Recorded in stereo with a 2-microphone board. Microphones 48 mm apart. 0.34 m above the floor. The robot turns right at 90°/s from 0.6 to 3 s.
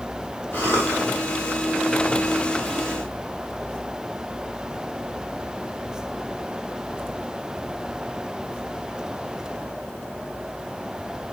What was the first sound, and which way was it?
A cough, 60° left.